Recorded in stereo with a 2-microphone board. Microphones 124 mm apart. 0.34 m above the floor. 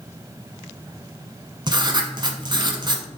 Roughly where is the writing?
Right.